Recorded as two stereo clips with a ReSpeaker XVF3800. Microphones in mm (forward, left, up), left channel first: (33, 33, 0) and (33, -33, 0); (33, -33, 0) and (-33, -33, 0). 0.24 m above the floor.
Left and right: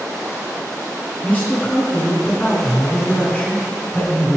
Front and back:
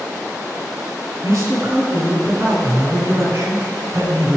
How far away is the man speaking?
About 2 m.